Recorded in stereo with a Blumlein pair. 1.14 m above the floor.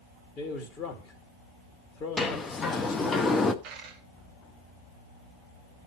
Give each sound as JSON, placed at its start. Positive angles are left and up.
{"t": 0.4, "sound": "a man speaking", "azimuth_deg": 25, "distance_m": 1.9}
{"t": 2.2, "sound": "a sliding door", "azimuth_deg": 15, "distance_m": 0.9}
{"t": 3.6, "sound": "a dropped coin", "azimuth_deg": -35, "distance_m": 3.0}